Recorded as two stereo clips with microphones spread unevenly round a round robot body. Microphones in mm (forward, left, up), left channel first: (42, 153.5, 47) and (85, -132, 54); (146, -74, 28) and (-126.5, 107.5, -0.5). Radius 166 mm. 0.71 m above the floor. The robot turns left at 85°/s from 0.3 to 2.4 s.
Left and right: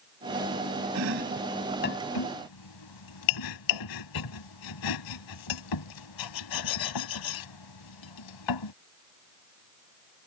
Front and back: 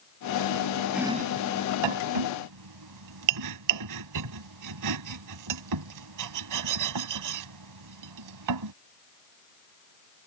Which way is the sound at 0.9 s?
125° right.